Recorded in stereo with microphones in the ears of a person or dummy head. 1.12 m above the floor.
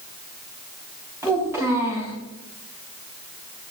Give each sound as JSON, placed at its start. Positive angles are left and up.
{"t": 1.2, "sound": "a child speaking", "side_deg": -20, "distance_m": 6.0}